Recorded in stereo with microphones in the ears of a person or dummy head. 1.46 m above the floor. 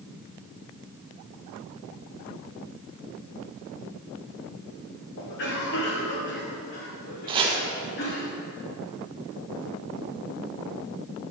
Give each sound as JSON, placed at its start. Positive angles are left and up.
{"t": 5.2, "sound": "a cough", "side_deg": 60, "distance_m": 1.5}
{"t": 7.3, "sound": "chopping", "side_deg": -25, "distance_m": 1.0}